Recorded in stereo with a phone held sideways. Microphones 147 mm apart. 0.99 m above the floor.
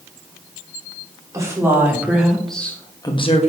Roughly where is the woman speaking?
Centre.